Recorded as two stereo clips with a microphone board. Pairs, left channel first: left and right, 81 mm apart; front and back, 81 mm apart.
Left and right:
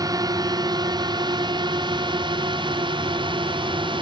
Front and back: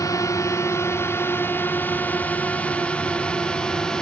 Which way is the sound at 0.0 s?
50° right.